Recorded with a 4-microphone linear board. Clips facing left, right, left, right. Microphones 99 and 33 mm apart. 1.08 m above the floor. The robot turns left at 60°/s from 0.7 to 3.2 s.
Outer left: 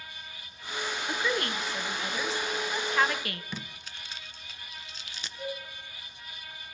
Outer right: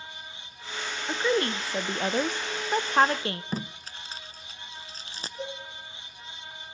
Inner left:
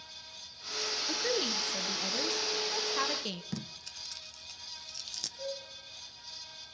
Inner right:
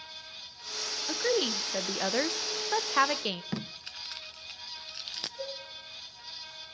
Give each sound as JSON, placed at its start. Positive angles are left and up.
{"t": 1.1, "sound": "a woman speaking", "azimuth_deg": -15, "distance_m": 0.7}
{"t": 3.5, "sound": "tape being pulled", "side_deg": -35, "distance_m": 0.6}
{"t": 5.4, "sound": "a cowbell", "side_deg": -35, "distance_m": 10.0}